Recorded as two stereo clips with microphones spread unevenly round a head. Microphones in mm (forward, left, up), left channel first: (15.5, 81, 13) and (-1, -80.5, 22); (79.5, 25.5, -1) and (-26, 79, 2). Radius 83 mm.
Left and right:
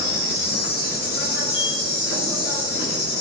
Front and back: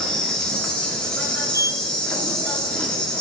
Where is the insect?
55° left, 2 m.